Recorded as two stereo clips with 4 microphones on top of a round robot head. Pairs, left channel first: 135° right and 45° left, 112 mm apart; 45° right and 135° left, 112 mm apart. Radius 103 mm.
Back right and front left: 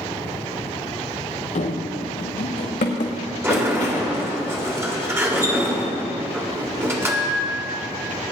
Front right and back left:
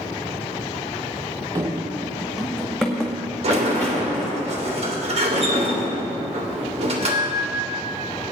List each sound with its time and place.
1.6 s running footsteps: 165° right, 0.9 m; by 4.2 s 125° right, 3.5 m
3.4 s a sliding door: 110° left, 1.9 m